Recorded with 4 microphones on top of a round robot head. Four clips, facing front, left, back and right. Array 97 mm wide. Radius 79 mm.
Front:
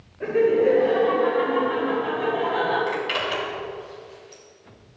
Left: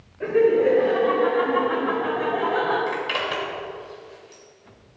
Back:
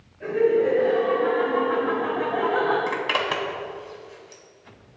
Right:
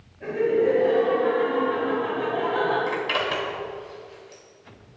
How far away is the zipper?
About 2.0 m.